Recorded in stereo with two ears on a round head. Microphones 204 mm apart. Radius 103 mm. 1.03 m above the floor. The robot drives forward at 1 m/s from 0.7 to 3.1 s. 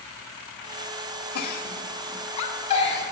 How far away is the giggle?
About 2.0 m.